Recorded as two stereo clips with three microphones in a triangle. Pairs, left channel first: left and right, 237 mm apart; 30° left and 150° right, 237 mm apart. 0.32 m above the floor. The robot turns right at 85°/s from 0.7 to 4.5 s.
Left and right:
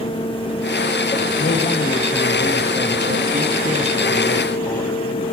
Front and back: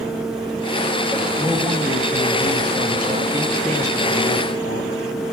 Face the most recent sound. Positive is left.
turn(degrees=15)